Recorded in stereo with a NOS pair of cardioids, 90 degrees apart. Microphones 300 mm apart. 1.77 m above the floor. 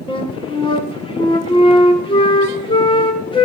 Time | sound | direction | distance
0.1 | a flute | 15° left | 1.5 m